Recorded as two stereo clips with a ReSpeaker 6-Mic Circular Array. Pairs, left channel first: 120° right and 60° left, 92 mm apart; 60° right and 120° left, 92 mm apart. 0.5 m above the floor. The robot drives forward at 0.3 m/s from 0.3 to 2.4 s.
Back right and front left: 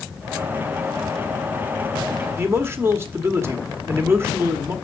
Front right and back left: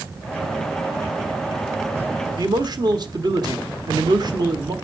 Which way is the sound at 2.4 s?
115° left.